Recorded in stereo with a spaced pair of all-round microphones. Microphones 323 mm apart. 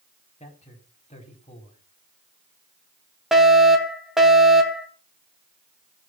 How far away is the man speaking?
About 4.5 m.